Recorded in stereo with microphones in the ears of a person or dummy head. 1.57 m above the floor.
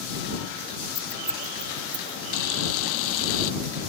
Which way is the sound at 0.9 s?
Centre (ahead or behind).